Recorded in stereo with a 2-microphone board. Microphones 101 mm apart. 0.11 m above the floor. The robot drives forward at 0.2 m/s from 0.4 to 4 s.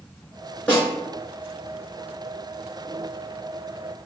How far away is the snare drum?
About 1.6 m.